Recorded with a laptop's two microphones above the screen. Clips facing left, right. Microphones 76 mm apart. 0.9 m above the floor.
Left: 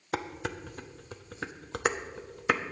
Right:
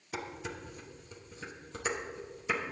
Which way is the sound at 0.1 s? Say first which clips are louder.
Left 6 dB; 70° left (ahead or behind).